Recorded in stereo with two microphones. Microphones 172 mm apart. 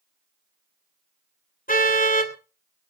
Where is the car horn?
50° left (ahead or behind), 2.5 m.